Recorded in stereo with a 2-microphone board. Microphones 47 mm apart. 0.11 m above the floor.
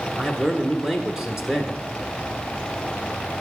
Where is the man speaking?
10° right (ahead or behind), 1.2 m.